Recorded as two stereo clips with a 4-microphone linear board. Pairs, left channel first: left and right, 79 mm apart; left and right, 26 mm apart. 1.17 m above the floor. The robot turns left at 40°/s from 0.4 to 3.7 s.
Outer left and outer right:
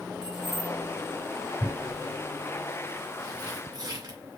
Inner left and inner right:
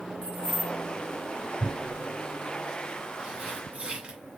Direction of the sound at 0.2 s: 70° left (ahead or behind).